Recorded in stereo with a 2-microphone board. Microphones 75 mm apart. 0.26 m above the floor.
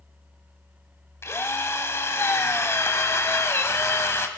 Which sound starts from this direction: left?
A drill, at 1.2 s.